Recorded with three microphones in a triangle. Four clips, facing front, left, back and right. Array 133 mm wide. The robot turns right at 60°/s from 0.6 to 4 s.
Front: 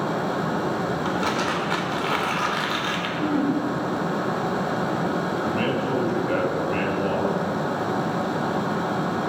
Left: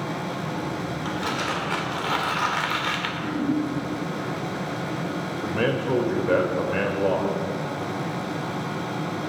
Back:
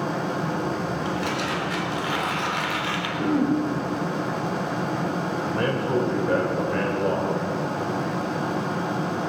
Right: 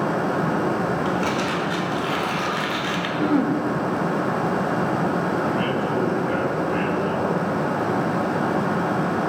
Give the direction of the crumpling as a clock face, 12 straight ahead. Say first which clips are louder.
Right 5 dB, front 2 dB; 1 o'clock.